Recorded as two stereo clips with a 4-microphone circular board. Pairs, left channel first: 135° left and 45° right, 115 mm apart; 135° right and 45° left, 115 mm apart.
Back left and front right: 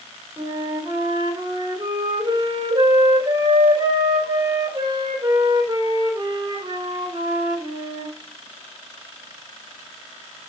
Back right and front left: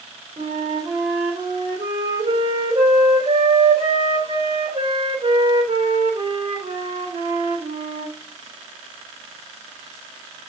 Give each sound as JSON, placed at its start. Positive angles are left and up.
{"t": 0.4, "sound": "a flute", "azimuth_deg": 10, "distance_m": 4.5}